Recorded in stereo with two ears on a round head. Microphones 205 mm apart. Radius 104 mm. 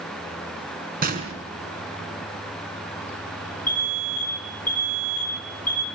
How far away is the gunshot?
About 4.5 m.